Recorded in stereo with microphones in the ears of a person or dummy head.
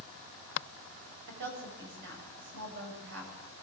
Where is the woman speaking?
65° right (ahead or behind), 8.5 m.